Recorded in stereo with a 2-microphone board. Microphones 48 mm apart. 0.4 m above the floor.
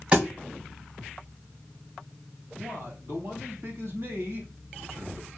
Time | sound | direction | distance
0.1 | a thud | 30° right (ahead or behind) | 2 m
2.6 | a man speaking | 55° right (ahead or behind) | 2.5 m